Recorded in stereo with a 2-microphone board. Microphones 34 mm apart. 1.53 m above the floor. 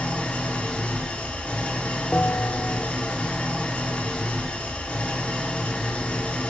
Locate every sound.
0.0 s an engine running: 40° left (ahead or behind), 1.3 m
2.1 s a bell: 40° left (ahead or behind), 0.8 m